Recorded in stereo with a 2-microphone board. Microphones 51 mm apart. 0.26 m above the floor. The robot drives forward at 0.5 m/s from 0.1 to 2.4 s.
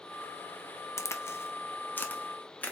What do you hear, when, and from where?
1.0 s a crack: 70° left (ahead or behind), 0.5 m; by 2.7 s 30° left (ahead or behind), 0.9 m